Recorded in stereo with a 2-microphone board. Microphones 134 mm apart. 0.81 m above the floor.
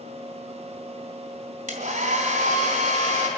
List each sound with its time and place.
1.7 s a hair dryer: 70° right (ahead or behind), 1.5 m